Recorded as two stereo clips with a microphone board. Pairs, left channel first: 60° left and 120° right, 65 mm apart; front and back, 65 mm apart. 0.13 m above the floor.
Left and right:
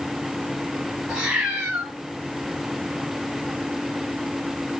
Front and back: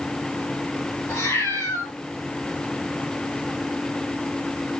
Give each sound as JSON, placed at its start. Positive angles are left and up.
{"t": 1.1, "sound": "a cat meowing", "azimuth_deg": -40, "distance_m": 7.0}